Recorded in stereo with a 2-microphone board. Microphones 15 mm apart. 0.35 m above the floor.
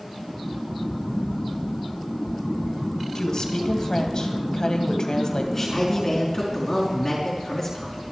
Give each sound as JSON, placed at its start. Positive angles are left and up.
{"t": 3.1, "sound": "a woman speaking", "side_deg": 45, "distance_m": 2.5}
{"t": 5.5, "sound": "a man speaking", "side_deg": 25, "distance_m": 4.5}